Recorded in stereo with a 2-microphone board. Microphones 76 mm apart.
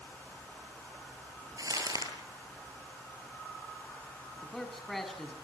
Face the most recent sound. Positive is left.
turn(degrees=5)  # may be behind; listen again after turning